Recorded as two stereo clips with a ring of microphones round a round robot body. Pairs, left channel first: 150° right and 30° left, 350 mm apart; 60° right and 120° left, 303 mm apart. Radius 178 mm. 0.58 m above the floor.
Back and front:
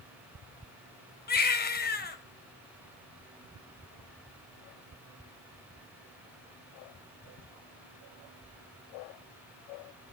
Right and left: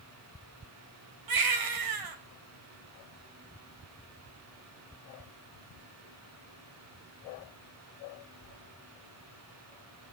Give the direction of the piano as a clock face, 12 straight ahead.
No piano in this recording.